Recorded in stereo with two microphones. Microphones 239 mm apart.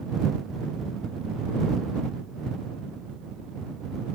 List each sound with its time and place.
Only background noise.